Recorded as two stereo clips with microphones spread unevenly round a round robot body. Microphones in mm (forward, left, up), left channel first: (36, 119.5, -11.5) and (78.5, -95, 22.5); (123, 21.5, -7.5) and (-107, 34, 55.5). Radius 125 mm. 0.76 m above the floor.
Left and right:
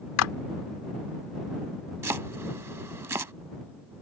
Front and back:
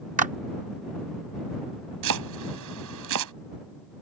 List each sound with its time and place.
0.2 s a clap: 115° left
2.0 s chopping: 160° right